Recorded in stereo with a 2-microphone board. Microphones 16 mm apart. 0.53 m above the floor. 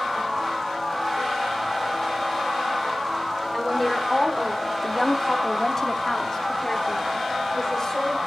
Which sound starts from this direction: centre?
A woman speaking, at 3.5 s.